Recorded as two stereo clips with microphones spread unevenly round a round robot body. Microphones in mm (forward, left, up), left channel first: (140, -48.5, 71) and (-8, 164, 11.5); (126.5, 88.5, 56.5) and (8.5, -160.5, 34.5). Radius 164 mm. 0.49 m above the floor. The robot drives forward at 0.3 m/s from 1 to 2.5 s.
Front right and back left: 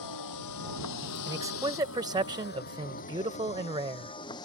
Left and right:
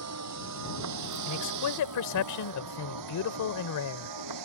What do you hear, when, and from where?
0.0 s a vehicle: 90° right; by 4.5 s 135° right
1.3 s a man speaking: 55° left; by 4.2 s 60° left